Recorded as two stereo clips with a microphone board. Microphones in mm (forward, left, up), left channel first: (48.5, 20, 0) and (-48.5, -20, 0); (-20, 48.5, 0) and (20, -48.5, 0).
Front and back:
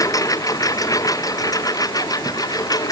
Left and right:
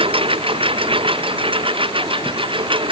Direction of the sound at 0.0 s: 35° right.